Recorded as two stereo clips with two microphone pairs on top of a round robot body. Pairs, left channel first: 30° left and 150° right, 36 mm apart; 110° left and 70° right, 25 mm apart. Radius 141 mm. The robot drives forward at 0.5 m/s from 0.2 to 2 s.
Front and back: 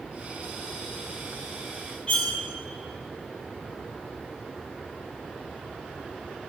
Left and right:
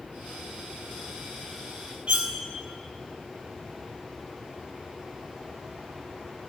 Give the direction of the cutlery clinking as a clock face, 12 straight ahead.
1 o'clock.